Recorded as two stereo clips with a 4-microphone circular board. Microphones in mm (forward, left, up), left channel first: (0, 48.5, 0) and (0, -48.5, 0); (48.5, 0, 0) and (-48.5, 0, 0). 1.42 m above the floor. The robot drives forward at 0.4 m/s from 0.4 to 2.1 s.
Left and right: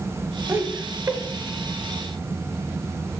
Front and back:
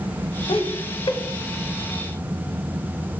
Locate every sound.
0.5 s laughter: 20° right, 1.0 m; by 1.2 s 30° right, 0.8 m